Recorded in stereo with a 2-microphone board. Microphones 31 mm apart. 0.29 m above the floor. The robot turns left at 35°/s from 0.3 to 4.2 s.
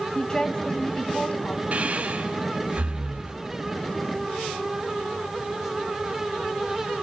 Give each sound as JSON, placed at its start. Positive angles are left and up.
{"t": 0.1, "sound": "a woman speaking", "azimuth_deg": 150, "distance_m": 1.9}
{"t": 1.7, "sound": "breathing", "side_deg": -55, "distance_m": 1.6}